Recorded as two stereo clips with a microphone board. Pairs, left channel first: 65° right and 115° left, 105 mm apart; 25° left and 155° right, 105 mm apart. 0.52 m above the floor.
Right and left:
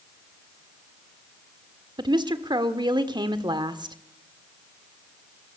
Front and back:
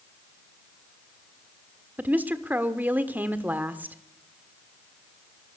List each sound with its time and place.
2.0 s a woman speaking: 135° left, 1.5 m